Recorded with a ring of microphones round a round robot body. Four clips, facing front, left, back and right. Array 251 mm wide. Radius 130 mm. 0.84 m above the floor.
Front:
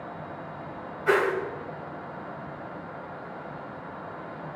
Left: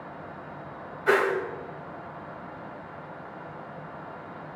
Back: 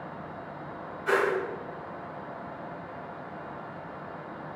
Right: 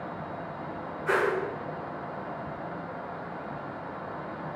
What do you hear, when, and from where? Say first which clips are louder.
1.1 s a whoosh: left 3 dB, front 2 dB; 70° left, 2 m